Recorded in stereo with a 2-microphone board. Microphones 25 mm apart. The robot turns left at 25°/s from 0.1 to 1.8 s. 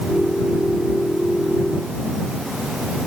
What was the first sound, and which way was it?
Only background noise.